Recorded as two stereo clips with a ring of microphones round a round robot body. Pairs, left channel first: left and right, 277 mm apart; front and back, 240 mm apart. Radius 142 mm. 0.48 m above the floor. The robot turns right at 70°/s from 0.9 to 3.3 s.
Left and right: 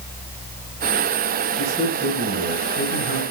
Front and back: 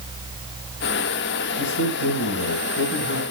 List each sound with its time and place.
1.6 s a man speaking: 35° right, 4 m; by 3.2 s 80° left, 4 m